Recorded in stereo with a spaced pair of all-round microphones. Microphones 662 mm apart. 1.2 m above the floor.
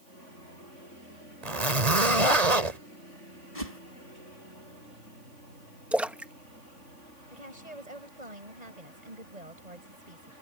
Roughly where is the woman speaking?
Right.